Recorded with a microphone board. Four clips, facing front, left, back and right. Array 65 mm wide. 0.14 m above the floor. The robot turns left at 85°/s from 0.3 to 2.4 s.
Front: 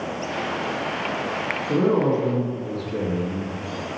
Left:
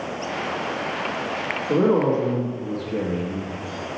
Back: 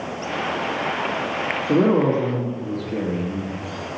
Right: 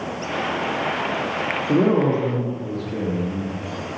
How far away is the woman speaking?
About 2 m.